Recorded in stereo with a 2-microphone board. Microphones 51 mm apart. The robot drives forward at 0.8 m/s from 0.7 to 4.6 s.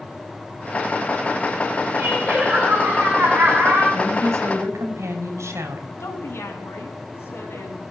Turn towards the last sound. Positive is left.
turn(degrees=65)  # may be behind; listen again after turning